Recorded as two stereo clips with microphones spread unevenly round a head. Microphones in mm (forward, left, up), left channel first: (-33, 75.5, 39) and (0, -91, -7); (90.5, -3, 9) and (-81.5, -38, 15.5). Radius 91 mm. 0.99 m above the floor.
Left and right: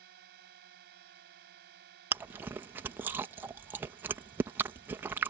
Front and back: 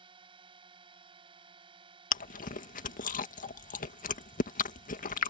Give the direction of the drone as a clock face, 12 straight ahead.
4 o'clock.